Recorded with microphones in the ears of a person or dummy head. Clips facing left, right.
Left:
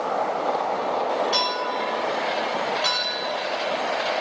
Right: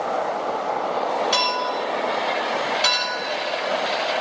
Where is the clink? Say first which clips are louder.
Right 2 dB; 45° right (ahead or behind), 3.5 m.